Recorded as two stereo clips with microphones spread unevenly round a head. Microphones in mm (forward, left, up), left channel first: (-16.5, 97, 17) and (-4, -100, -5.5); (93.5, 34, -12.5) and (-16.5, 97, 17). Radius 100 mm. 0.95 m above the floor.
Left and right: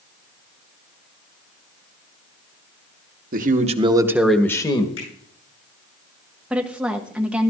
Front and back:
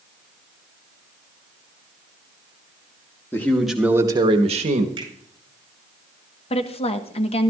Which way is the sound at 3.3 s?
85° right.